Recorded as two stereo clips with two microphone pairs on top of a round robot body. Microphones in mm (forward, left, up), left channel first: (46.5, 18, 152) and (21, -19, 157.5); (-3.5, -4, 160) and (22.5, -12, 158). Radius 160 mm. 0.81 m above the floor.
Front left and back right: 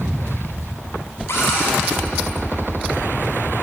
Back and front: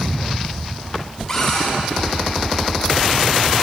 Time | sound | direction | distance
1.3 | a cupboard door | 85° left | 6 m